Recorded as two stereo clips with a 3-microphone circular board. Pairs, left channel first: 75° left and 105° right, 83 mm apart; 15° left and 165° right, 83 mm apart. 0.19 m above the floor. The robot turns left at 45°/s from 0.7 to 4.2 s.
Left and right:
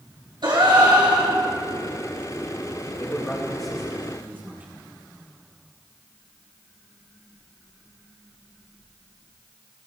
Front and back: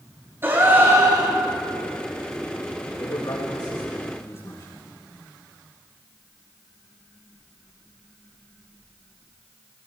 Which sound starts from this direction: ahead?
A man speaking, at 3.0 s.